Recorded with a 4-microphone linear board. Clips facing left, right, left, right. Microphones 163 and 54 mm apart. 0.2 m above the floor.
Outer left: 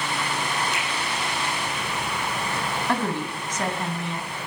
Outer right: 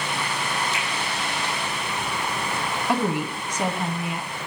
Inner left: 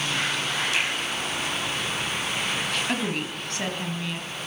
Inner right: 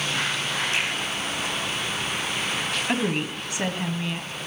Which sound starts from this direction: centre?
A woman speaking, at 2.9 s.